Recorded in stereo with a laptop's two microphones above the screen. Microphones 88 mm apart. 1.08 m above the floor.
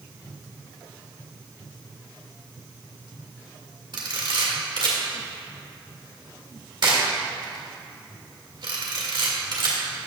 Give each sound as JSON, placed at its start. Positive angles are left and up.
{"t": 3.9, "sound": "a camera shutter", "side_deg": -60, "distance_m": 1.8}